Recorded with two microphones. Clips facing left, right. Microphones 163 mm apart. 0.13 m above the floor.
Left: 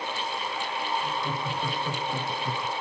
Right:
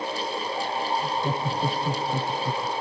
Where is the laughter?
40° right (ahead or behind), 1.6 m; by 2.7 s 5° right (ahead or behind), 1.2 m.